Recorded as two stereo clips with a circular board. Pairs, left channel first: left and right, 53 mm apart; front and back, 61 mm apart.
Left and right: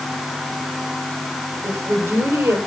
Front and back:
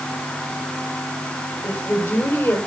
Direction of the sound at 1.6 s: 55° right.